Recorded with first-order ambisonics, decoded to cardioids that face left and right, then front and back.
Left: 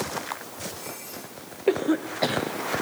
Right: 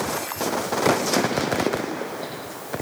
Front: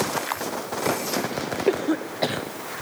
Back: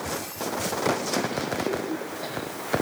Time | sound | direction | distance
1.7 | a cough | 40° left | 1.1 m